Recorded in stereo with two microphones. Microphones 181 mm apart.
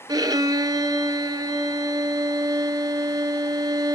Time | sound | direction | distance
0.1 | a violin | 25° right (ahead or behind) | 0.9 m